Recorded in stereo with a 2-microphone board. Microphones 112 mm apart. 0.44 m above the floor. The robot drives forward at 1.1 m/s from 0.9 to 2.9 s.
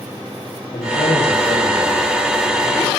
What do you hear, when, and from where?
0.7 s a man speaking: 75° left (ahead or behind), 7 m; by 2.9 s 80° left, 7 m